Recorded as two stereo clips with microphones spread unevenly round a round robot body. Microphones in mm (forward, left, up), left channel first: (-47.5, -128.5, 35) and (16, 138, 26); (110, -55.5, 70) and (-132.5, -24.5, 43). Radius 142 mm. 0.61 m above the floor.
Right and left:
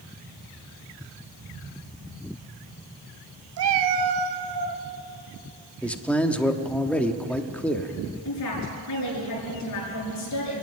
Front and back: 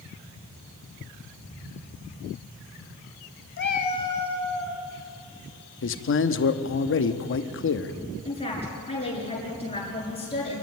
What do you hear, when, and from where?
3.6 s a cat meowing: 35° left, 0.9 m; by 4.8 s 85° left, 2.5 m
5.8 s a man speaking: 20° right, 1.1 m
8.2 s a woman speaking: 75° right, 7.5 m